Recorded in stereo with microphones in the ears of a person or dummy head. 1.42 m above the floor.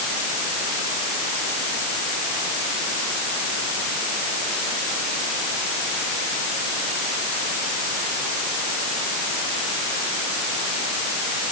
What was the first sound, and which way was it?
Only background noise.